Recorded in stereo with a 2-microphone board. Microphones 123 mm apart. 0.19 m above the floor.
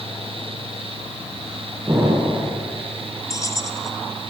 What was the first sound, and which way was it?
An explosion, 35° right (ahead or behind).